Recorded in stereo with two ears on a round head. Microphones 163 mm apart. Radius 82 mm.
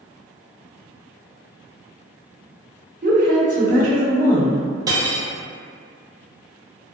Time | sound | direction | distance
3.0 | a woman speaking | 45° right (ahead or behind) | 0.9 m
4.9 | cutlery clinking | 20° right (ahead or behind) | 0.6 m